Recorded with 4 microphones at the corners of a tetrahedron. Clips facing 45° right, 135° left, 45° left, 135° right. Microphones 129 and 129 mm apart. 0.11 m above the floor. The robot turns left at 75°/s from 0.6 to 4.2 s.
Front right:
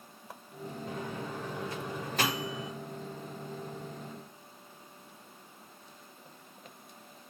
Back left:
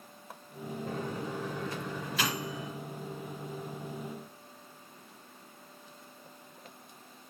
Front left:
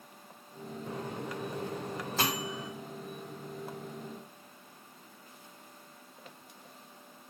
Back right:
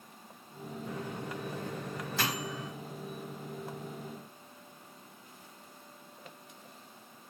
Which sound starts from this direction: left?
A microwave, at 0.9 s.